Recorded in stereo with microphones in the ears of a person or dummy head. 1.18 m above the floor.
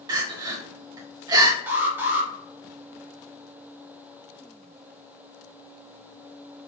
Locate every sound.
0.1 s crying: 20° right (ahead or behind), 0.6 m
1.7 s an alarm: 10° right (ahead or behind), 1.0 m